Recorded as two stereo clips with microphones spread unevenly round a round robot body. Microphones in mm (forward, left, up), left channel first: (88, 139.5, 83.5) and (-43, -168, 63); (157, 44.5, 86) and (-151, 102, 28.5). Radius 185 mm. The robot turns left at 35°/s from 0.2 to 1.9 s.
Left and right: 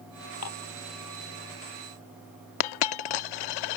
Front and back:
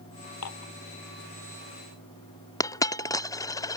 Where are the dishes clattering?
25° left; by 0.7 s 15° left.